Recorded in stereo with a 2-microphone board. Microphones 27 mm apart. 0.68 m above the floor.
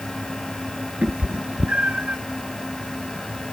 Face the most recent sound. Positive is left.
turn(degrees=-50)  # may be behind; listen again after turning